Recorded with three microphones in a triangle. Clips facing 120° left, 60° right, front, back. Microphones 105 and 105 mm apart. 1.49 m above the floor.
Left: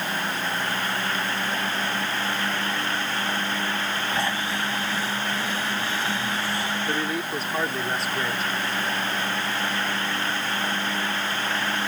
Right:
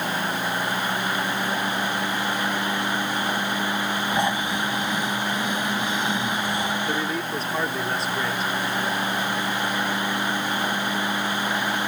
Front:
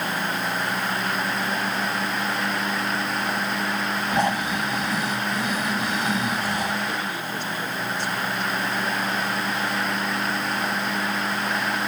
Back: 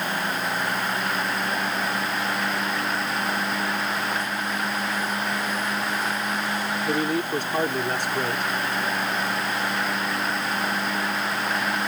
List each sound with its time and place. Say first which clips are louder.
4.1 s snoring: right 4 dB, front 5 dB; 10° left
6.8 s a man speaking: right 1 dB, back 5 dB; 150° right